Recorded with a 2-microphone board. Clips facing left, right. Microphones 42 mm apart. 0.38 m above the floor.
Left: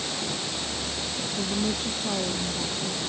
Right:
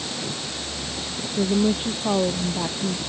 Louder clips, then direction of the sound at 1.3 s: Right 8 dB; 30° right (ahead or behind).